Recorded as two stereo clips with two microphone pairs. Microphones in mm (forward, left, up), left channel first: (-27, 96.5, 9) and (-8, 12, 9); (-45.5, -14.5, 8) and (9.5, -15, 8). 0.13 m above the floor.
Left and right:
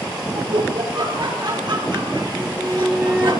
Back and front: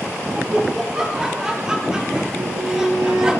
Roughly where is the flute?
Ahead.